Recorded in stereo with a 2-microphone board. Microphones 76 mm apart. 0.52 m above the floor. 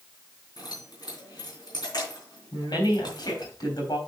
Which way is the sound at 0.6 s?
65° left (ahead or behind).